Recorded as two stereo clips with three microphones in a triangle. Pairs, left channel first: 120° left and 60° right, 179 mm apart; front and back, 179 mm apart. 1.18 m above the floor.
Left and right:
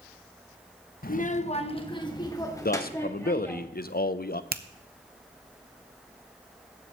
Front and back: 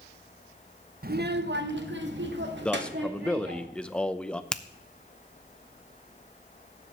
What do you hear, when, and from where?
1.0 s a child speaking: 150° left, 0.7 m; by 3.6 s 165° right, 2.5 m
2.6 s a man speaking: 85° left, 0.6 m
4.5 s a finger snap: 85° right, 0.6 m